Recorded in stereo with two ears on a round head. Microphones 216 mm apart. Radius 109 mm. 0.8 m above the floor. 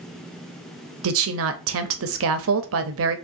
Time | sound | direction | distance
1.0 | a woman speaking | 60° right (ahead or behind) | 0.7 m